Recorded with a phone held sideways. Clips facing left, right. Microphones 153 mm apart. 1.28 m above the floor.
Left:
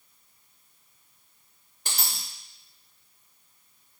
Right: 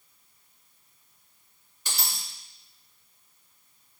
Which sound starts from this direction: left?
A dropped coin, at 1.9 s.